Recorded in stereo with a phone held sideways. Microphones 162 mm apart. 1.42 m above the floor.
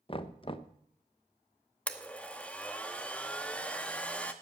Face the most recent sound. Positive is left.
turn(degrees=10)  # may be behind; listen again after turning